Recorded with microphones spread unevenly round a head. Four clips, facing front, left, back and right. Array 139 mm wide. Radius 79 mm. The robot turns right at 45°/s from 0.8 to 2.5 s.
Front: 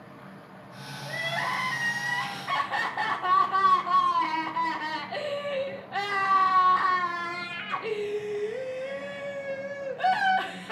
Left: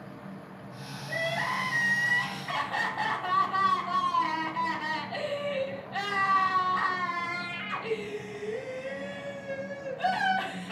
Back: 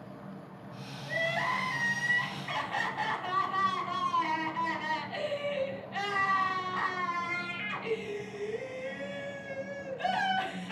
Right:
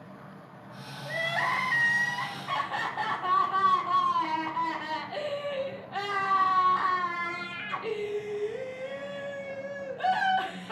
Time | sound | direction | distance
1.1 | crying | 85° right | 1.0 m